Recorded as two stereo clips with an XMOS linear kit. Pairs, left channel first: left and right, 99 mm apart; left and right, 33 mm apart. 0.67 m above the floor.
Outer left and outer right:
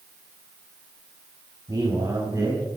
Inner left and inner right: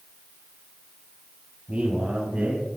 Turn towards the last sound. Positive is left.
turn(degrees=-30)  # may be behind; listen again after turning